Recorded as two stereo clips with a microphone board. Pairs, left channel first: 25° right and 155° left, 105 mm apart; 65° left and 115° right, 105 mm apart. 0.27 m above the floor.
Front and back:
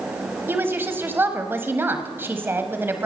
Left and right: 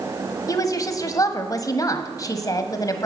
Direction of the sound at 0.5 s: 100° left.